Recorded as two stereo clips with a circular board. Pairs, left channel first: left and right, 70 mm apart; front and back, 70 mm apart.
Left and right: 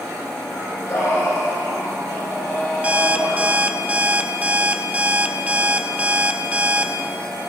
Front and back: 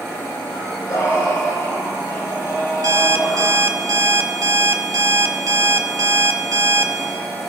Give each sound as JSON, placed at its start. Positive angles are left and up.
{"t": 0.5, "sound": "singing", "azimuth_deg": 35, "distance_m": 6.0}
{"t": 2.8, "sound": "an alarm clock", "azimuth_deg": -155, "distance_m": 0.6}